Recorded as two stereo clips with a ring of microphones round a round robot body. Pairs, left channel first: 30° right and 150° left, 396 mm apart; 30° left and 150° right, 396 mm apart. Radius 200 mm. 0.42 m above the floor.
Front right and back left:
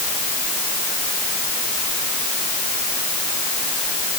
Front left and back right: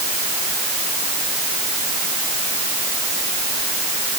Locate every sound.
Only background noise.